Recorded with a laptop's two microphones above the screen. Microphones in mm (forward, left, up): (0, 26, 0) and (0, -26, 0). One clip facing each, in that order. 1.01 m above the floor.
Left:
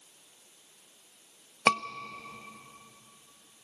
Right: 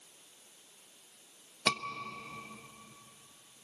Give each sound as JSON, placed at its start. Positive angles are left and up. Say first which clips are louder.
{"t": 1.7, "sound": "a scream", "louder": "left 7 dB", "side_deg": 40, "distance_m": 1.2}